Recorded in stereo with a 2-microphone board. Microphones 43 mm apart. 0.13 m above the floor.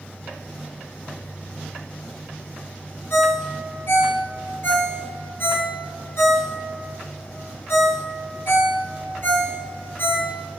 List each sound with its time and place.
3.1 s a ringtone: 65° left (ahead or behind), 1.9 m